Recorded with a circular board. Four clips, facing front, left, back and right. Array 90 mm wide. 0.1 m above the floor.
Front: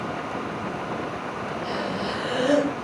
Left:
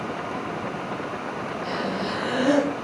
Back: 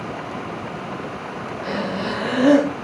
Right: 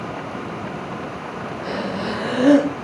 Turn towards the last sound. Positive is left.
turn(degrees=-145)